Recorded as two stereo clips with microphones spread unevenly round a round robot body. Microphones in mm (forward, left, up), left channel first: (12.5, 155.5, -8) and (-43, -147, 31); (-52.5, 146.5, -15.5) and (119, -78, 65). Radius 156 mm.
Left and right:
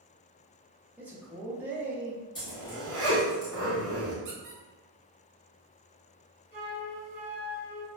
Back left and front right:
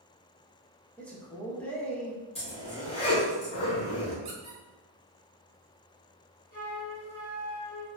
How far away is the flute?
About 1.4 m.